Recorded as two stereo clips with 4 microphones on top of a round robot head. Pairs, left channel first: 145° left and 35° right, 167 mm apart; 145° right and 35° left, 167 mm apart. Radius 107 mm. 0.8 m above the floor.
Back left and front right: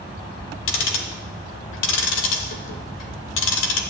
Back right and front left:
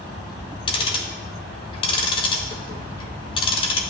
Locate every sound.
0.7 s ticking: 155° left, 1.1 m